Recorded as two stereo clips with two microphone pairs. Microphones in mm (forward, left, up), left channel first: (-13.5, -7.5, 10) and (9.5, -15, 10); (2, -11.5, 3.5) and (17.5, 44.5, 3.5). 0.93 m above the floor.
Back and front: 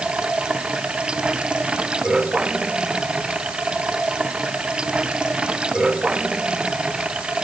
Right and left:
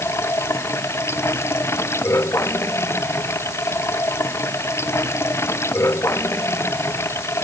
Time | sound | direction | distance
0.0 | running water | 65° right | ?